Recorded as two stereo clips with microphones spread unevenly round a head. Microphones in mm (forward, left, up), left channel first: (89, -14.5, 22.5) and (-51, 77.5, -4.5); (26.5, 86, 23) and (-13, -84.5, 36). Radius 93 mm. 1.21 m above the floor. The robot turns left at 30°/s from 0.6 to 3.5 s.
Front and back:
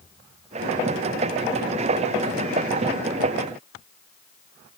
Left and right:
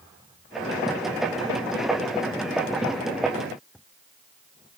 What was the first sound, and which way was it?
Only background noise.